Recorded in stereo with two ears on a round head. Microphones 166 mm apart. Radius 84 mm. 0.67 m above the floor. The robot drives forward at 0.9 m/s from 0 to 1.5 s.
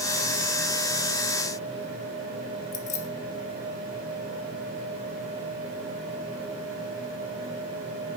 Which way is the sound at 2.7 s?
40° left (ahead or behind).